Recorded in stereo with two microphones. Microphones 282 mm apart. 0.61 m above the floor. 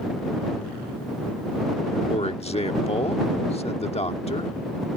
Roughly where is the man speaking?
Left.